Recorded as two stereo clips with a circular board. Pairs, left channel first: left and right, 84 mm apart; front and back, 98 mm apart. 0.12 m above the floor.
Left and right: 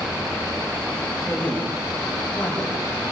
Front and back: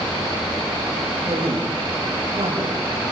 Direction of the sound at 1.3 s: 160° left.